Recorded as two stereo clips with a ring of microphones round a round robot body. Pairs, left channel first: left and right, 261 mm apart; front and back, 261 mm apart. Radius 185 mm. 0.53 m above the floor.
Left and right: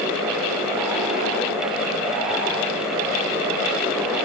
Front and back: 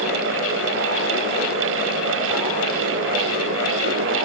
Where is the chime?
No chime in this recording.